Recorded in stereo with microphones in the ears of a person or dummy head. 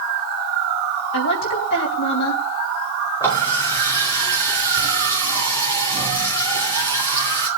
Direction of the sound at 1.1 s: 60° left (ahead or behind).